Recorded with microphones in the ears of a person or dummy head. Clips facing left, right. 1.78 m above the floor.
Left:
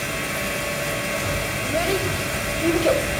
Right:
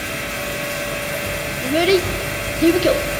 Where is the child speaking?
35° right (ahead or behind), 0.8 m; by 3.0 s 25° right (ahead or behind), 1.0 m.